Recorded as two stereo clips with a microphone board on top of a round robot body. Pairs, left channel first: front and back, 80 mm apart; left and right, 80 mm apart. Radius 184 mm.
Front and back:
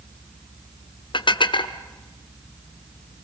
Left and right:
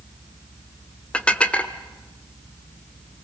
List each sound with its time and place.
1.1 s dishes clattering: 15° left, 1.7 m